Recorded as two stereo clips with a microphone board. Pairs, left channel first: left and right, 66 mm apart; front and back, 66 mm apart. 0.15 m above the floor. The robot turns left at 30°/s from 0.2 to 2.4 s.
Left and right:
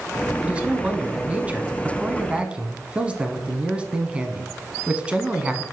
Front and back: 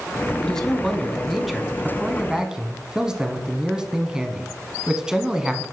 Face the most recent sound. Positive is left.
turn(degrees=-120)